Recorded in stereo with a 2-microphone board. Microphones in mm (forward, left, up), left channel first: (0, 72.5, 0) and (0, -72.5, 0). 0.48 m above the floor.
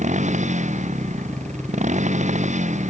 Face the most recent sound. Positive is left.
turn(degrees=-55)  # may be behind; listen again after turning